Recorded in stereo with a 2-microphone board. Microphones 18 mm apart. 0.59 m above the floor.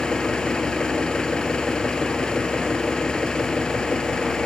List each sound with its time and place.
0.0 s an engine running: 45° left (ahead or behind)